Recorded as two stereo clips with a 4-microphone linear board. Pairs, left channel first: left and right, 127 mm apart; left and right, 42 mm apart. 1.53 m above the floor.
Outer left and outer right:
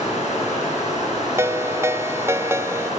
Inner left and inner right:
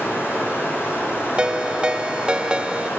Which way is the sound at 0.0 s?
70° left (ahead or behind).